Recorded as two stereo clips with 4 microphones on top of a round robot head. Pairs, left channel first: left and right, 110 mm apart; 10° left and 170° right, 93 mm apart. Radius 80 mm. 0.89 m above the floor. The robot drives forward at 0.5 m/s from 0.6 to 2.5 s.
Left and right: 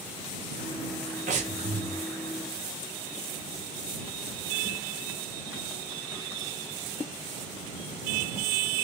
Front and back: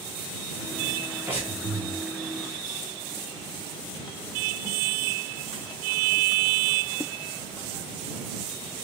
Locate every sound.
1.3 s breathing: 95° right, 1.2 m; by 2.0 s 110° right, 1.3 m